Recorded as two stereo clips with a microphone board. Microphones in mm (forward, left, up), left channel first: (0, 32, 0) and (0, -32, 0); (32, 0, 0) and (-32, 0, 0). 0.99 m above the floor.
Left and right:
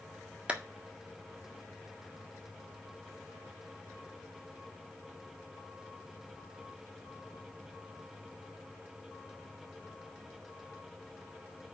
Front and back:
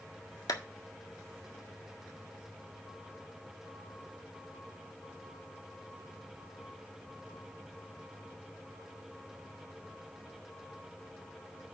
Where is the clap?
20° right, 1.6 m.